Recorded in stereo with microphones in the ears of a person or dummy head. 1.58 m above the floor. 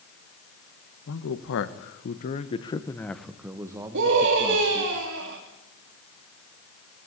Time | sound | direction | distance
1.1 | a man speaking | 80° left | 1.7 m
3.9 | a scream | 65° right (ahead or behind) | 3 m